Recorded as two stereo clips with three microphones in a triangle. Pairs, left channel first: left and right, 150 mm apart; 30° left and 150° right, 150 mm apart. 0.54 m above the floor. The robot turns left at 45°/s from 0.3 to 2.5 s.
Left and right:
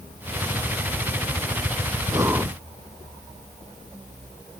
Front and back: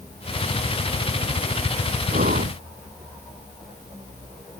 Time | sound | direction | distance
2.1 | breathing | 155° right | ?